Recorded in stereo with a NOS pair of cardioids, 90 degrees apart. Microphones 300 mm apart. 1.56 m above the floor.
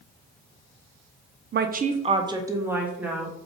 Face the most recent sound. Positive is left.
turn(degrees=0)